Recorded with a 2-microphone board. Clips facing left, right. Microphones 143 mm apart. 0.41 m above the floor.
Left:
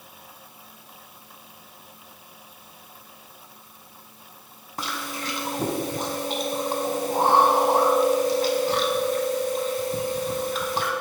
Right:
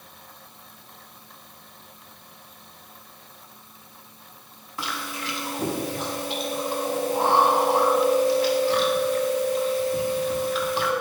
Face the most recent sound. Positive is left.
turn(degrees=40)  # may be behind; listen again after turning